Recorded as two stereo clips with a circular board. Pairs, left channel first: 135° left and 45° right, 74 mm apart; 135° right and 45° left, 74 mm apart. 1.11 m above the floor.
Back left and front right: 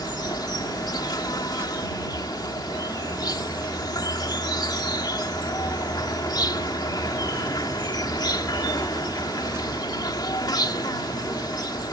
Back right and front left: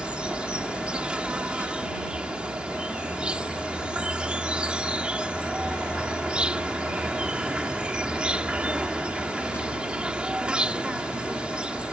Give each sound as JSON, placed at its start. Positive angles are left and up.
{"t": 0.0, "sound": "an insect", "azimuth_deg": 120}